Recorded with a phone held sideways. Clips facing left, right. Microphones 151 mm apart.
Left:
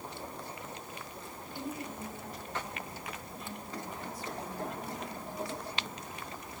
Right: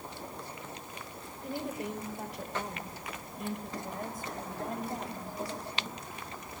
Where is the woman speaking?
75° right (ahead or behind), 4 m; by 6.0 s 35° right (ahead or behind), 7 m.